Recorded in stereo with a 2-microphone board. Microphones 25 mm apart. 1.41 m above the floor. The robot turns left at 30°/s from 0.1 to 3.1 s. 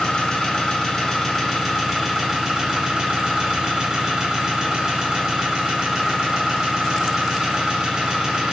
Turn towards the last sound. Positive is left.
turn(degrees=-35)